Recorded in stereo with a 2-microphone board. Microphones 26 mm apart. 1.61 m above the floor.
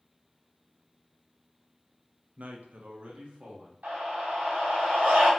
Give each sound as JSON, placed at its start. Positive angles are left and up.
{"t": 2.4, "sound": "a man speaking", "side_deg": -60, "distance_m": 0.6}
{"t": 3.8, "sound": "a scream", "side_deg": -80, "distance_m": 1.7}